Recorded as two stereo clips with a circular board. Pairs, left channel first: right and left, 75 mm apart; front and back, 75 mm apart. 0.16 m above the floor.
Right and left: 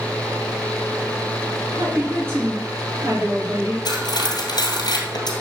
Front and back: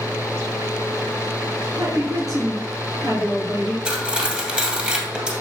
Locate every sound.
1.7 s a woman speaking: 145° left, 3 m
3.9 s cutlery clinking: 105° right, 2 m